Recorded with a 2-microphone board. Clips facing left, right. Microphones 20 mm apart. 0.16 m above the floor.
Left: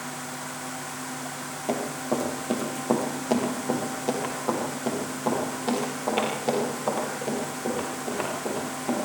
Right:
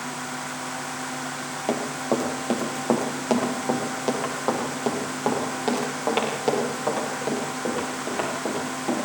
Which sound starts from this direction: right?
Running footsteps, at 1.7 s.